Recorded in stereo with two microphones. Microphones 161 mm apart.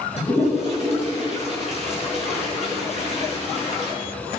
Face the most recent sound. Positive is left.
turn(degrees=40)  # may be behind; listen again after turning